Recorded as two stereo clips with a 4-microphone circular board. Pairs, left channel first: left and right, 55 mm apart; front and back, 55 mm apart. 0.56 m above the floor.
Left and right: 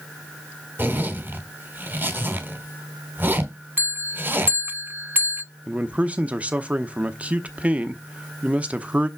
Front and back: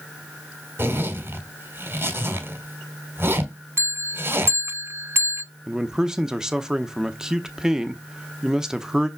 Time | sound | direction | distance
0.8 | a zipper | 140° right | 1.6 m
3.8 | a bell | 145° right | 0.6 m
5.7 | a man speaking | 110° right | 0.8 m